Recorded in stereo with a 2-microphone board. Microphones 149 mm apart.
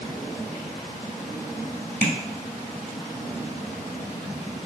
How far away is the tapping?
About 1.1 m.